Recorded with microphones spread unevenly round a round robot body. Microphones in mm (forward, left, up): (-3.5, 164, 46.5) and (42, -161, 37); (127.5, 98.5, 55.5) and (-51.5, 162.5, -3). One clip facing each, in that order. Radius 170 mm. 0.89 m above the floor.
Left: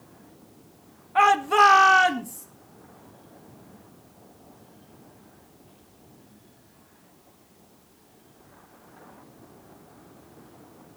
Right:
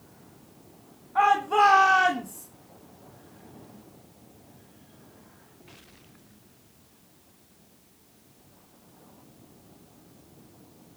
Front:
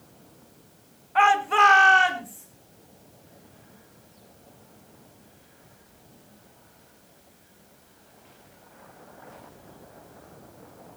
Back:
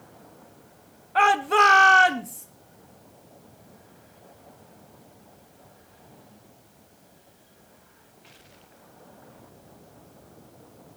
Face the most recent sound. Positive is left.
turn(degrees=175)